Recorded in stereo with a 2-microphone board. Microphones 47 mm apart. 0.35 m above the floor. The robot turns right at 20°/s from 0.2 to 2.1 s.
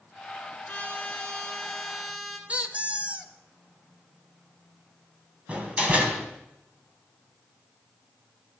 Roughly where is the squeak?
Right.